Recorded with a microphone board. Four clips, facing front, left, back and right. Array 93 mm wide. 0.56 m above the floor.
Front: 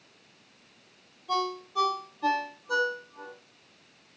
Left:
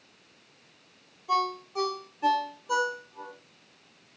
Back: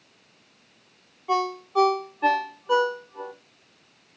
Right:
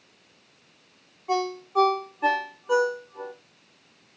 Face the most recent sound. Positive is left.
turn(degrees=-145)